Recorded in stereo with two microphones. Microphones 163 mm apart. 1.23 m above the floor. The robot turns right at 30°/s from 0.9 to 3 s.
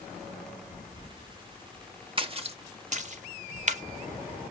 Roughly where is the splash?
Right.